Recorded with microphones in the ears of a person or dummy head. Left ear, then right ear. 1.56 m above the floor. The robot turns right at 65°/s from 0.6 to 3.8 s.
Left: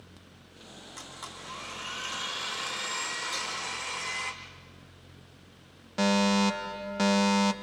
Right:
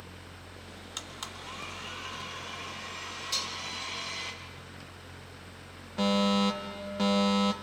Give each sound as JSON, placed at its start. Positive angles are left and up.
{"t": 1.0, "sound": "a blender", "azimuth_deg": -50, "distance_m": 2.5}
{"t": 3.3, "sound": "dishes clattering", "side_deg": -25, "distance_m": 1.9}
{"t": 6.0, "sound": "a fire alarm", "side_deg": 15, "distance_m": 0.9}